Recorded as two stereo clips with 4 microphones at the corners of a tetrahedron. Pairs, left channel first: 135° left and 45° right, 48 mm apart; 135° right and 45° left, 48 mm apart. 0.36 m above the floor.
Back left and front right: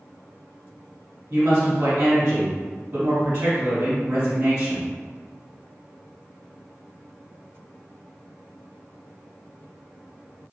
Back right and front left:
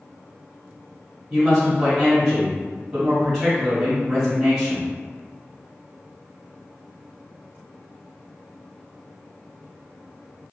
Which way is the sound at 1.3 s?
45° right.